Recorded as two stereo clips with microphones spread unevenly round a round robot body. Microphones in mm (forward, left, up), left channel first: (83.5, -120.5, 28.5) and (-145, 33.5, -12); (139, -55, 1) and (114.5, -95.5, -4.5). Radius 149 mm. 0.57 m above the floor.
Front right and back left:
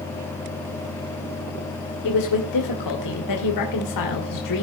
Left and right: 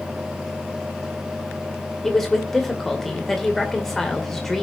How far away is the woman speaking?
About 2.5 m.